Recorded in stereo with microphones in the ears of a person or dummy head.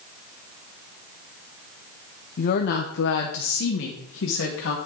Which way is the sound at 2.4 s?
45° left (ahead or behind).